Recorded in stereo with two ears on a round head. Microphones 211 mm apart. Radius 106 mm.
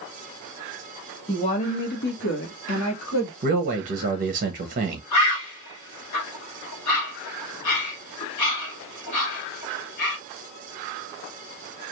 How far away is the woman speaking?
About 1.2 m.